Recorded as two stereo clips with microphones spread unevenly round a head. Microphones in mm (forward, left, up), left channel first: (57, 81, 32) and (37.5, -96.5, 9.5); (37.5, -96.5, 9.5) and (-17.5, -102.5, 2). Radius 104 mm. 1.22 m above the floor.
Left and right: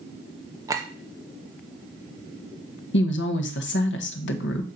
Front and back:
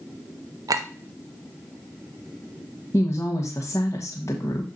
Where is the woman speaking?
75° left, 1.2 m.